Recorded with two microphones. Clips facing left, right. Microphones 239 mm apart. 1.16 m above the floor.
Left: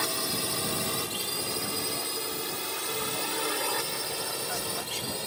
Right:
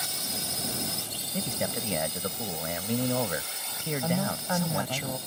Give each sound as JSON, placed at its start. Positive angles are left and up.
{"t": 0.0, "sound": "a drone", "side_deg": 70}
{"t": 1.3, "sound": "a man speaking", "side_deg": -85}
{"t": 4.0, "sound": "a woman speaking", "side_deg": -85}